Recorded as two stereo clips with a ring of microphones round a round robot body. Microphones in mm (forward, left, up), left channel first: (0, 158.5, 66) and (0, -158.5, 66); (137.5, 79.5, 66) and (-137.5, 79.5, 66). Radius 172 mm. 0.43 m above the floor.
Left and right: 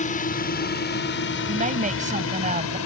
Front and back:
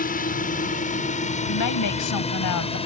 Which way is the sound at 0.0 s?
40° left.